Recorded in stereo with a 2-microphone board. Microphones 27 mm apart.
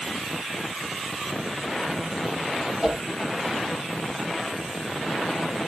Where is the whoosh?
30° right (ahead or behind), 5 m.